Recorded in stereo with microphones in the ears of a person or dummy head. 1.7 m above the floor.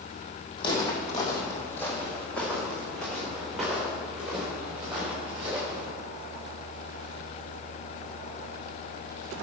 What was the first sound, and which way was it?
Footsteps, 30° left (ahead or behind).